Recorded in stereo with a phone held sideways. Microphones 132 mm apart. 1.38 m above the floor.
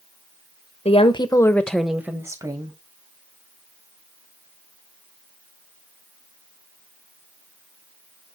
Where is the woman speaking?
50° left (ahead or behind), 1.0 m; by 2.8 s 35° right (ahead or behind), 1.5 m.